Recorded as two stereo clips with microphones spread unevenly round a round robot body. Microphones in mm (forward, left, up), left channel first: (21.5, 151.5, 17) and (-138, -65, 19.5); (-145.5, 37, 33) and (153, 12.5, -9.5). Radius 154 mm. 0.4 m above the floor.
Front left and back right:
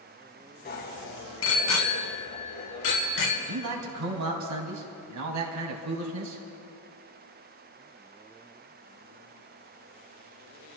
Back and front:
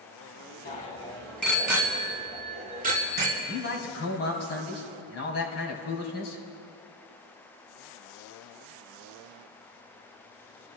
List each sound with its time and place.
0.7 s a bicycle bell: 110° left, 2 m; by 3.4 s 55° left, 4 m
3.5 s a man speaking: 135° right, 2.5 m